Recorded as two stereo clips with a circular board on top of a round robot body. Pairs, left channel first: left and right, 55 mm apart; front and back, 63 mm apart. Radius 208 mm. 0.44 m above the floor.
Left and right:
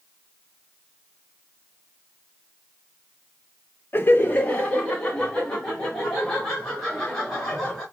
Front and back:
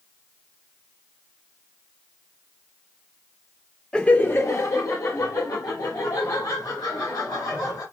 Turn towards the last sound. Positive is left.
turn(degrees=5)